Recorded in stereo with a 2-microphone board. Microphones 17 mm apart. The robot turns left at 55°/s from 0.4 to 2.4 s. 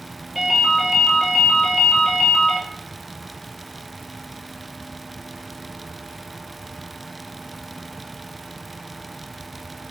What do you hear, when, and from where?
0.3 s a ringtone: 170° right, 1.3 m; by 2.6 s 80° left, 1.3 m